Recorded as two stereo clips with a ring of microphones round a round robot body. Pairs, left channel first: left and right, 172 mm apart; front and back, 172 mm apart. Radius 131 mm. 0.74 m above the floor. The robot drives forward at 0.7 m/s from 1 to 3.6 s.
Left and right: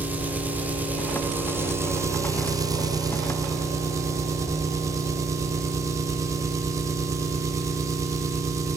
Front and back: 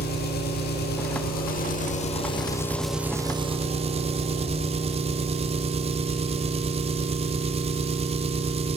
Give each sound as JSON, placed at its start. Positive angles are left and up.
{"t": 0.0, "sound": "an engine running", "azimuth_deg": -10, "distance_m": 1.5}